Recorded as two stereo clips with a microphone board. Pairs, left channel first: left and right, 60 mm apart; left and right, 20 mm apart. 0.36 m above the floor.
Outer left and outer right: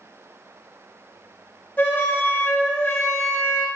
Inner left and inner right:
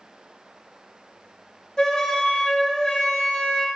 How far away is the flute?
About 0.7 m.